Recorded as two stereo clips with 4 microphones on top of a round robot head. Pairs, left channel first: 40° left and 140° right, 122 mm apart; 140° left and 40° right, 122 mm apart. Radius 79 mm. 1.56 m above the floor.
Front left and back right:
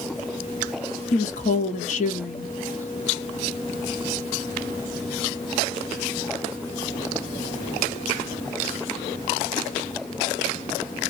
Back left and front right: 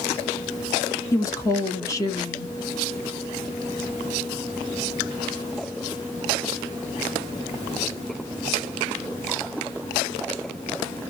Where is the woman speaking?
75° left, 0.8 m.